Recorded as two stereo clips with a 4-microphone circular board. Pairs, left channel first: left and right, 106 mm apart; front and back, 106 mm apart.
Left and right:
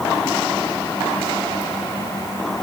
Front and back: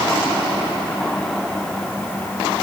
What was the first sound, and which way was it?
Only background noise.